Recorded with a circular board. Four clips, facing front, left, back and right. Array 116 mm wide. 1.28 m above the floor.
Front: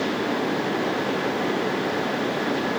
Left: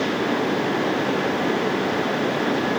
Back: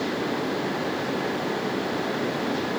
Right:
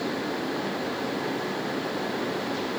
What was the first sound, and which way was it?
Only background noise.